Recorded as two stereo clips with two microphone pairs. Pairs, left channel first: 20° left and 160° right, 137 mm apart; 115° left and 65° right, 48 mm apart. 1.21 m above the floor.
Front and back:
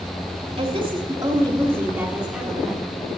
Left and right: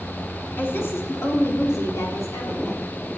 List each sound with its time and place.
0.6 s a woman speaking: 160° left, 2.5 m; by 3.2 s 100° left, 4 m